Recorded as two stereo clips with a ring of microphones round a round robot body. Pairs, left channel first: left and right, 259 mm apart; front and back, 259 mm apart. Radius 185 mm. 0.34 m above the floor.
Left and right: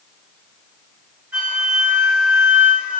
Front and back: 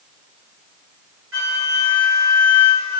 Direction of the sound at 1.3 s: 175° right.